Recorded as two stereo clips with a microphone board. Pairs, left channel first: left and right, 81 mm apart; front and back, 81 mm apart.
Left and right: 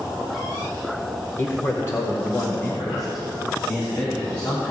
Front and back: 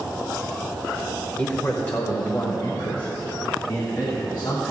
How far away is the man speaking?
About 1.0 m.